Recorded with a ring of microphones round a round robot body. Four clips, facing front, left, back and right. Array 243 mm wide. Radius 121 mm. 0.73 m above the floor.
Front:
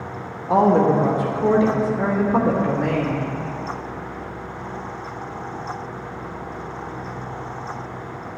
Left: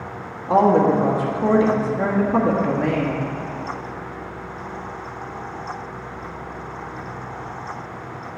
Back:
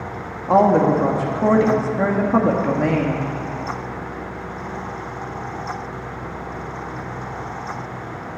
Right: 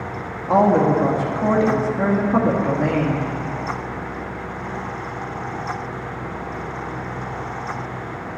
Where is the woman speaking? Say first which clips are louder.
Even, back 1 dB; 150° right, 1.4 m.